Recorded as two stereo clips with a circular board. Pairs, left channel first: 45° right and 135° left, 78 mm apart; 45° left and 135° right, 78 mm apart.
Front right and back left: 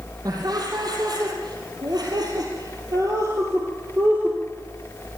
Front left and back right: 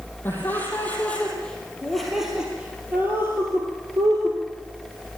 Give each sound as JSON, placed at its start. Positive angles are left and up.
{"t": 0.2, "sound": "laughter", "azimuth_deg": 105, "distance_m": 5.0}